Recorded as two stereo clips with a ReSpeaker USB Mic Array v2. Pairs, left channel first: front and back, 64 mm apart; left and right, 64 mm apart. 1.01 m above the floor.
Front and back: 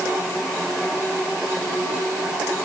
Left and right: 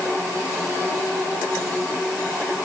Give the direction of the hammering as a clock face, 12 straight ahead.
I don't hear hammering.